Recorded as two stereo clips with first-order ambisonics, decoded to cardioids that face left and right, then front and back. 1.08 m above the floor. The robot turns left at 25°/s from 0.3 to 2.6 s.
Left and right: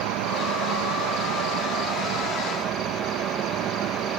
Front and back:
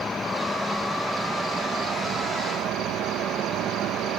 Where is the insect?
75° right; by 4.2 s 135° right.